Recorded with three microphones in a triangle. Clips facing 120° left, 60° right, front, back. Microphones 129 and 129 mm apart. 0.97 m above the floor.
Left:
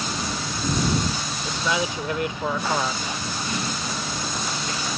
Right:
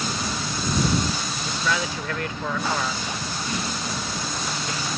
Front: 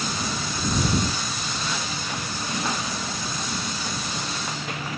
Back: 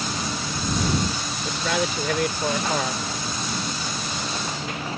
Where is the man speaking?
170° right.